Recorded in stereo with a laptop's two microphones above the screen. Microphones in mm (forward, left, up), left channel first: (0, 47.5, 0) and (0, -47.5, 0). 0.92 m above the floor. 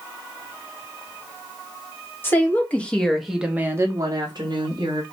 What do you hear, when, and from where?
2.2 s a woman speaking: 25° left (ahead or behind), 1.3 m; by 5.0 s 65° right (ahead or behind), 1.2 m